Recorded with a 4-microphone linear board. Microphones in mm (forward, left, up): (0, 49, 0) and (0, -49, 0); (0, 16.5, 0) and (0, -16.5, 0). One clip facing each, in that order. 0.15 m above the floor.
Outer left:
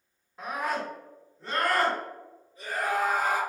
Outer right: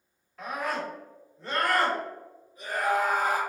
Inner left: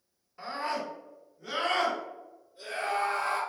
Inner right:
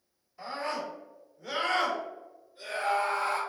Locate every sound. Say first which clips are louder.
0.4 s a scream: outer left 1 dB, inner left 1 dB; 20° left (ahead or behind), 1.8 m; by 3.4 s 30° right (ahead or behind), 1.9 m